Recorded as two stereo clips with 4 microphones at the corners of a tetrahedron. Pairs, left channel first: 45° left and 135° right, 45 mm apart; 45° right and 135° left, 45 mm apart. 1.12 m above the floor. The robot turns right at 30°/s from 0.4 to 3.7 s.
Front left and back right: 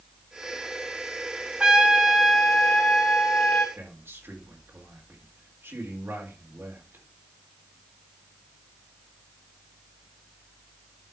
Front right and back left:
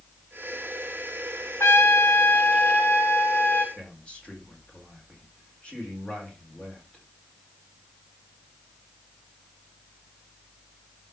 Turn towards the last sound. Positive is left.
turn(degrees=-115)